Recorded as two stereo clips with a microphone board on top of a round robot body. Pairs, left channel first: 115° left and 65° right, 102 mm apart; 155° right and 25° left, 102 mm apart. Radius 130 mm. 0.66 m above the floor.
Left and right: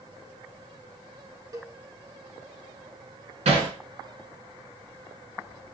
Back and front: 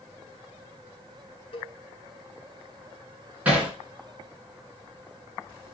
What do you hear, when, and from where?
1.5 s a cowbell: 125° right, 2.5 m
3.5 s hammering: 55° right, 3.5 m